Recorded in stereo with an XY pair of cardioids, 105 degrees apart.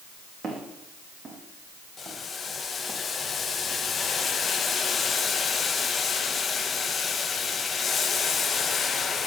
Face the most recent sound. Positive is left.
turn(degrees=40)